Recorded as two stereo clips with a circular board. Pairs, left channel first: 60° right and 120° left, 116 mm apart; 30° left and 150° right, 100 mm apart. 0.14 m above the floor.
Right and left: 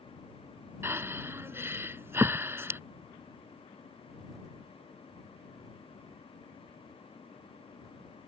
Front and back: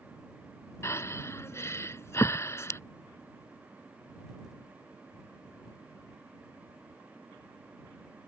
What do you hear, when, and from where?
0.8 s breathing: 70° left